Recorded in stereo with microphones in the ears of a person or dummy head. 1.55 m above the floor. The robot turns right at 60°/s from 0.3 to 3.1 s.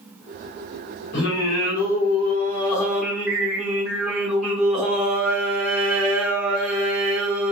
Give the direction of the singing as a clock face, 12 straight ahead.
10 o'clock.